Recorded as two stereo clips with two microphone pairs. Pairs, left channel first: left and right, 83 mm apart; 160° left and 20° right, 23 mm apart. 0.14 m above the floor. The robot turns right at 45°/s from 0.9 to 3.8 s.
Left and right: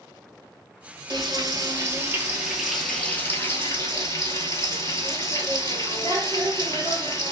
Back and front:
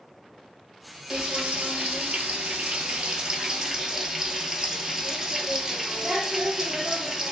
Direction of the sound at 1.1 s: 75° right.